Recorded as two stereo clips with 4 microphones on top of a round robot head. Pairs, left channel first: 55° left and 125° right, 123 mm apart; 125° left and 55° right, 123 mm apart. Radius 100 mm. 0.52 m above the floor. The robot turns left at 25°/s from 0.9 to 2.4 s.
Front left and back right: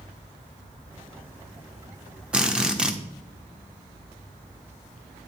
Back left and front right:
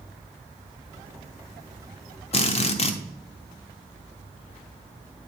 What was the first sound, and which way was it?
A drill, 155° left.